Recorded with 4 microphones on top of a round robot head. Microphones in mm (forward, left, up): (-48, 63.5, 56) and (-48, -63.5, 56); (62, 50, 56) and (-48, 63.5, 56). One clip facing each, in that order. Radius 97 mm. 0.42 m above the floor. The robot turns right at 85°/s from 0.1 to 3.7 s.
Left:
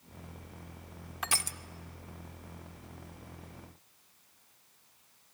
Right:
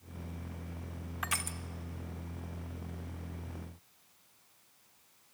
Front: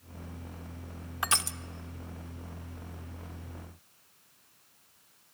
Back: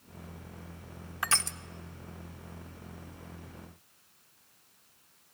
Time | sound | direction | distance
1.2 | crushing | 50° left | 1.0 m